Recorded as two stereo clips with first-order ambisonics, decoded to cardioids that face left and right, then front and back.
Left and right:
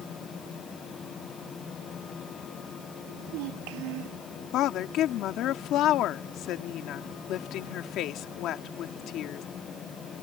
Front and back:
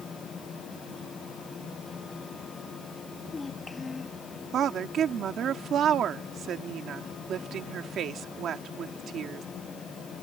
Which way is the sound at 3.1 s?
80° right.